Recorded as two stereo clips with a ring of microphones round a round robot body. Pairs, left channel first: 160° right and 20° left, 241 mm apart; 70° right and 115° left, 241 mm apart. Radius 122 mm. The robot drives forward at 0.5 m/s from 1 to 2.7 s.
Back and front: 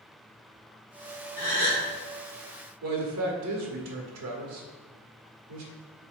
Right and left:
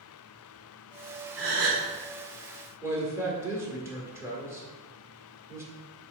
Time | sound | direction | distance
1.4 | a gasp | 75° left | 2.5 m
2.8 | a man speaking | 35° left | 1.6 m